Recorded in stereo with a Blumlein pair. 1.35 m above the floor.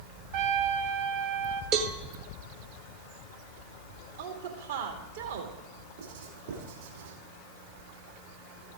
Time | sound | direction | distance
0.3 | a trumpet | 40° right | 1.0 m
1.7 | a cowbell | 35° right | 1.2 m
4.2 | a woman speaking | 60° right | 2 m
6.0 | writing | 55° right | 3 m